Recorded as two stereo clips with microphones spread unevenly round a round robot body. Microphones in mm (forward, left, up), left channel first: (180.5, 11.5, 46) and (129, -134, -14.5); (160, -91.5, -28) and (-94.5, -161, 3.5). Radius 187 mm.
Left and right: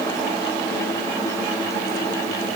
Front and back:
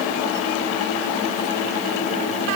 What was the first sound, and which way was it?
Only background noise.